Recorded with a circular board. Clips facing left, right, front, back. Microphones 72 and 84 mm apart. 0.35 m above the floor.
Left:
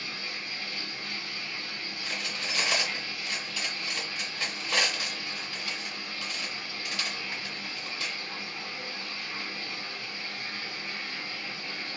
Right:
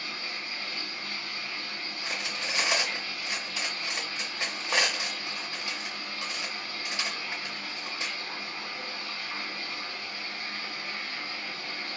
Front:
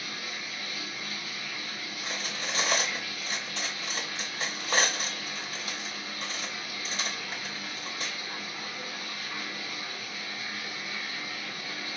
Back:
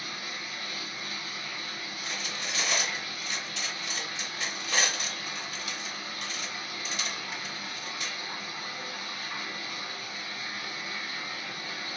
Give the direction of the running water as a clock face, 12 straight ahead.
4 o'clock.